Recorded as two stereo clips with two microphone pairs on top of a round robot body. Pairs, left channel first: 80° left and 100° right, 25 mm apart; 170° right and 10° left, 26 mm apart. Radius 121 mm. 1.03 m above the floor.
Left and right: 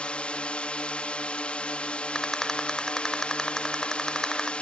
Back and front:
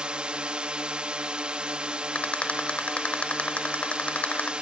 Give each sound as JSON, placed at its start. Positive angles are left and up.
{"t": 0.0, "sound": "a drone", "azimuth_deg": 40}
{"t": 2.1, "sound": "a rattle", "azimuth_deg": 155}